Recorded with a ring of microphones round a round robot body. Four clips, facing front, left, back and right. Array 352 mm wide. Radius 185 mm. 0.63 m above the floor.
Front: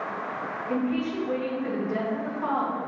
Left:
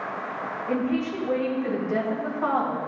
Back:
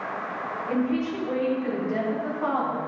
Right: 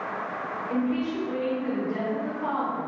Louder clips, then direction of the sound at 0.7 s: Left 1 dB, back 1 dB; 110° left.